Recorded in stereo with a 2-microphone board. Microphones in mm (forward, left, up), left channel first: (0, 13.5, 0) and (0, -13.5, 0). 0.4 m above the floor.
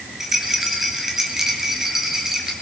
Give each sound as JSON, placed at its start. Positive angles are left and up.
{"t": 0.2, "sound": "a rattle", "side_deg": -15, "distance_m": 3.0}